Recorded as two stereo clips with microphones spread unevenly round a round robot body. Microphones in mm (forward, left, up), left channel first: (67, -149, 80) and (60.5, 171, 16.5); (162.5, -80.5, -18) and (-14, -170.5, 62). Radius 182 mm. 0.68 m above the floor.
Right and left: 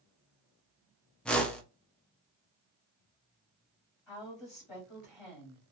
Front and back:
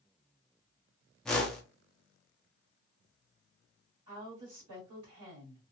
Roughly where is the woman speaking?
Behind.